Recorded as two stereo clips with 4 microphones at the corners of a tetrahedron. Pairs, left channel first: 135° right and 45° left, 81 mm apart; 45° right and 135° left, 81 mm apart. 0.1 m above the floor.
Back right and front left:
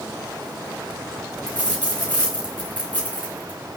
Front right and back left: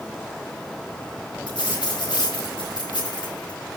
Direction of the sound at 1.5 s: 60° right.